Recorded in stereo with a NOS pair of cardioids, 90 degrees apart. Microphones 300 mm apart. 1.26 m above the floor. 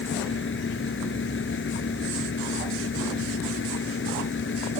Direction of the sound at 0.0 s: 40° left.